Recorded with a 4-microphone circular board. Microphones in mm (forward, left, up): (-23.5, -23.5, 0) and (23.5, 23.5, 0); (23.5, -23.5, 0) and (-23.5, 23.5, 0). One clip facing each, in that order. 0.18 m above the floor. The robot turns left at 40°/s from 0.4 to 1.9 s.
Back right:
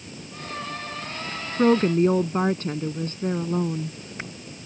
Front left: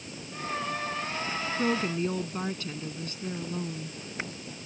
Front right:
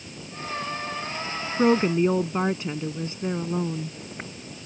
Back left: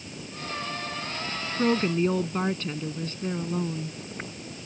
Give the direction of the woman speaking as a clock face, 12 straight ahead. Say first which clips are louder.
Back right 11 dB, front right 4 dB; 3 o'clock.